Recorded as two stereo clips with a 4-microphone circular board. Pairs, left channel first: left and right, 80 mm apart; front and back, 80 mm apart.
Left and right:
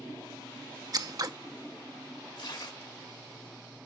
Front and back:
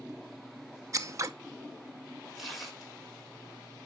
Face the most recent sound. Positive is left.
turn(degrees=90)